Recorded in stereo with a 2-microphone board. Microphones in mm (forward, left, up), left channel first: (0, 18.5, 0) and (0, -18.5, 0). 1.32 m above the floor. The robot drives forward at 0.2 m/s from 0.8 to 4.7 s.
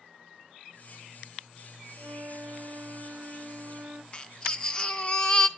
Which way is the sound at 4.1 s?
25° left (ahead or behind).